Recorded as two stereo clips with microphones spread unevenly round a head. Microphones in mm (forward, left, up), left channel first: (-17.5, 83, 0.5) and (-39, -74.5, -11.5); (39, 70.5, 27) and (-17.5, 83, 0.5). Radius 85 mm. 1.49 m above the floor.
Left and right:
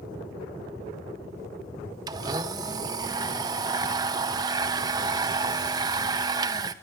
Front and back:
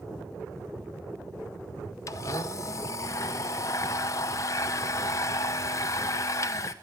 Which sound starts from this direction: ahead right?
A blender, at 2.1 s.